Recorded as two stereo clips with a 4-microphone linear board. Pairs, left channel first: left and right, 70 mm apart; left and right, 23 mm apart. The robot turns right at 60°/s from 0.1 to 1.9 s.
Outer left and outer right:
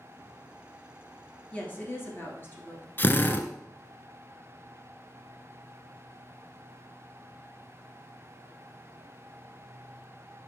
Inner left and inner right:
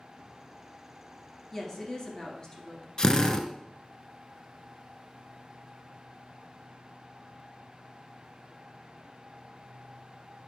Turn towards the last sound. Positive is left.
turn(degrees=30)  # may be behind; listen again after turning